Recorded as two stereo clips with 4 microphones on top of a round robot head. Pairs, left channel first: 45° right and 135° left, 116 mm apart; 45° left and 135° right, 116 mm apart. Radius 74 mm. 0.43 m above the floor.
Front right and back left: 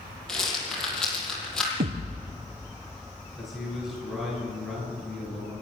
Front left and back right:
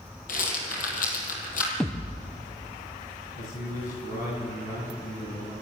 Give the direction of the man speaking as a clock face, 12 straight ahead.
10 o'clock.